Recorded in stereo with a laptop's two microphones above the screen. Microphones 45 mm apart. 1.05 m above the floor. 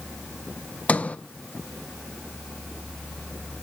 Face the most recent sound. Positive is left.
turn(degrees=30)  # may be behind; listen again after turning